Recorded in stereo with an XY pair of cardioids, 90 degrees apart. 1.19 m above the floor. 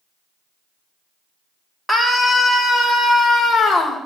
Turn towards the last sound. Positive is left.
turn(degrees=50)